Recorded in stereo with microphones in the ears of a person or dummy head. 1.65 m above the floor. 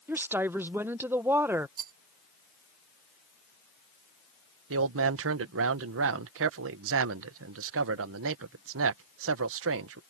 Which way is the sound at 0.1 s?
10° right (ahead or behind).